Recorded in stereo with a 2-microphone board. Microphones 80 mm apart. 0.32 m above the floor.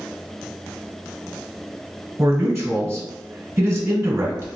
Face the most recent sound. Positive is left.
turn(degrees=-30)  # may be behind; listen again after turning